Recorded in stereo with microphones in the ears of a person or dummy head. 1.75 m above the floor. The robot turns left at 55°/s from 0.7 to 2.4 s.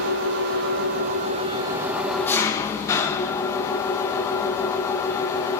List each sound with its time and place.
0.0 s an engine running: 100° right, 1.2 m; by 5.6 s 165° left, 1.2 m